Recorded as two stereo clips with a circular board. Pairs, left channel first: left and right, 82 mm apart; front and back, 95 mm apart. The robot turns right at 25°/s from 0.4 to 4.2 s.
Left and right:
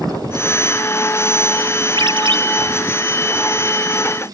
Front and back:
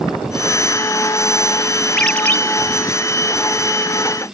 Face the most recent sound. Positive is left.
turn(degrees=-25)